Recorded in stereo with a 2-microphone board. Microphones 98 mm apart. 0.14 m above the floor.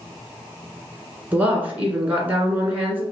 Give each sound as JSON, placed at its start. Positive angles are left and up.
{"t": 1.3, "sound": "a woman speaking", "side_deg": -15, "distance_m": 1.8}